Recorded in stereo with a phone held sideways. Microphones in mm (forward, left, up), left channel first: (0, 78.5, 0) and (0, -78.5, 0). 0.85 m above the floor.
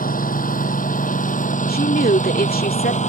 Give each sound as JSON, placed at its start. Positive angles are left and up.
{"t": 0.0, "sound": "a lawn mower", "side_deg": 65}
{"t": 1.7, "sound": "a woman speaking", "side_deg": 80}